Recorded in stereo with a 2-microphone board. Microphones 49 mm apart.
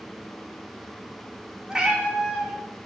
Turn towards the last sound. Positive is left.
turn(degrees=-15)  # may be behind; listen again after turning